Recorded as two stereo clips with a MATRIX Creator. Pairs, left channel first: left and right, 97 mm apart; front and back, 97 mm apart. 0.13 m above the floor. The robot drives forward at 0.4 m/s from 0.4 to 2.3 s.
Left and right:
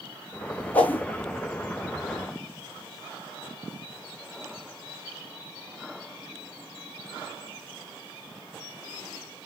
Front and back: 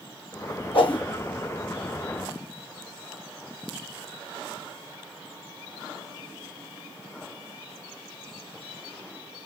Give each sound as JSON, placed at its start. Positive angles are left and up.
{"t": 0.7, "sound": "a whoosh", "azimuth_deg": 15, "distance_m": 0.9}